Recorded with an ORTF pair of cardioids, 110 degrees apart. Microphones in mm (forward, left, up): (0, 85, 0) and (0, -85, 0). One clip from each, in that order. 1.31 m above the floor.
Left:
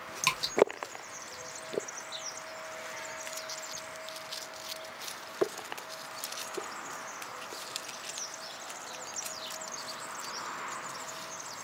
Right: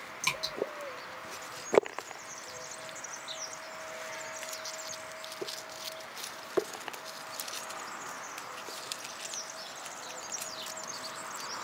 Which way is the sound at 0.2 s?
35° left.